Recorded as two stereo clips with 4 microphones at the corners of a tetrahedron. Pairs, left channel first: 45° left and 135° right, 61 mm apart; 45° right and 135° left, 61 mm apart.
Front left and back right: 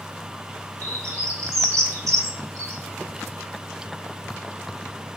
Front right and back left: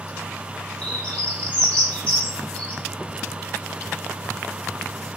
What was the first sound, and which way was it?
A bird, 115° right.